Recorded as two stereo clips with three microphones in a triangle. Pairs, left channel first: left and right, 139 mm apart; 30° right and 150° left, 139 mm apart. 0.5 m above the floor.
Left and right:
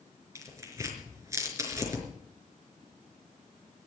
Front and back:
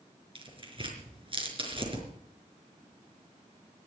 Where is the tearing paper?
160° right, 4.5 m.